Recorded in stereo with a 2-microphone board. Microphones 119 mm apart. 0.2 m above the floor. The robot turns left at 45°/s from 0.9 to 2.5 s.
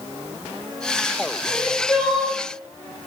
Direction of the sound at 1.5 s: 25° left.